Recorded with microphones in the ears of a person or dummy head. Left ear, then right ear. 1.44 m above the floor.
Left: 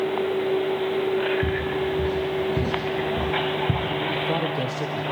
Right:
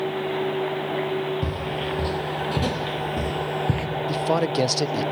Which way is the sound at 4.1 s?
55° right (ahead or behind).